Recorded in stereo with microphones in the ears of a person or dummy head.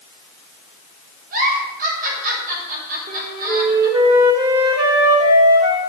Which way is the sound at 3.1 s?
30° right (ahead or behind).